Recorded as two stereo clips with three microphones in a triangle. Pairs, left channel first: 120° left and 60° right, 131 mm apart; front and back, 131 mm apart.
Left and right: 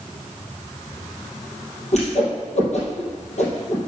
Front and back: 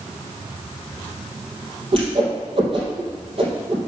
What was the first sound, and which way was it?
A whoosh, 140° left.